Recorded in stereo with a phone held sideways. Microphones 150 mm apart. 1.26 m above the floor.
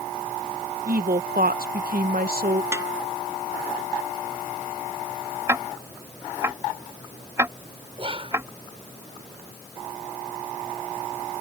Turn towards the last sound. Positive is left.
turn(degrees=-40)  # may be behind; listen again after turning